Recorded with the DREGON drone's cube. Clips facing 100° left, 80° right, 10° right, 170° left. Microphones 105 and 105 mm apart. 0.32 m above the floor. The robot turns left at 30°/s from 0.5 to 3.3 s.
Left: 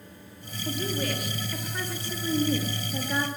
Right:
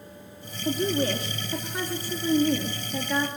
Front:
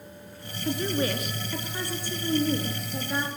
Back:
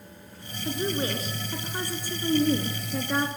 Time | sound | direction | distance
0.7 | a woman speaking | 120° right | 4 m